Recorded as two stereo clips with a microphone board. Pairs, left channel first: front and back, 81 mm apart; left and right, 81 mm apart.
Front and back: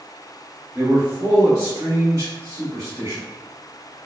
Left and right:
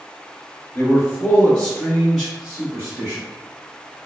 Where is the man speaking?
125° left, 1.2 m; by 3.2 s 145° right, 1.5 m.